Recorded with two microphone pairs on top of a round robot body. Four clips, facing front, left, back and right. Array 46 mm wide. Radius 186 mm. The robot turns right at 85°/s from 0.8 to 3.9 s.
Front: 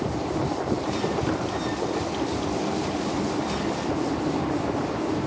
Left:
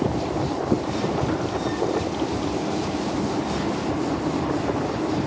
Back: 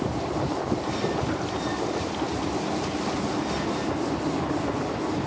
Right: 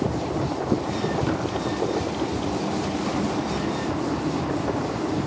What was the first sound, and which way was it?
Tapping, 80° right.